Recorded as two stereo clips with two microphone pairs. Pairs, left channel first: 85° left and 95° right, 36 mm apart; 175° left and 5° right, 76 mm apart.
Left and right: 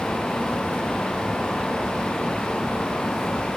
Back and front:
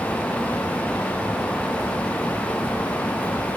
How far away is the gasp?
No gasp in this recording.